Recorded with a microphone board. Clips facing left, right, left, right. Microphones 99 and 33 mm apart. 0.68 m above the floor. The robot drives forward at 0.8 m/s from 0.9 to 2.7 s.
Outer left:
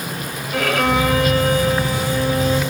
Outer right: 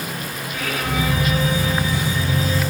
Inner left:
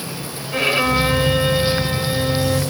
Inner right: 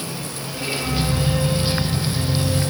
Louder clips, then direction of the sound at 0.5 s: Outer left 8 dB, inner left 8 dB; 75° left (ahead or behind).